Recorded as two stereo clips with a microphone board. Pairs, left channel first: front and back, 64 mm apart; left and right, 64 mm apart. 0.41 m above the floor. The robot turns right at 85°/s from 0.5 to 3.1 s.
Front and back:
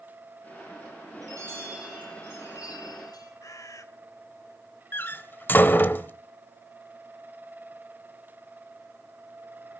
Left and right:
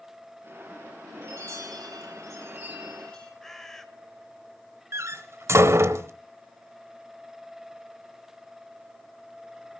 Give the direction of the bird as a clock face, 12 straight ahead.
12 o'clock.